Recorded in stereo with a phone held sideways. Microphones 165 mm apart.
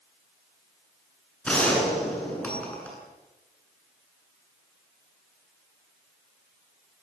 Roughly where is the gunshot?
Centre.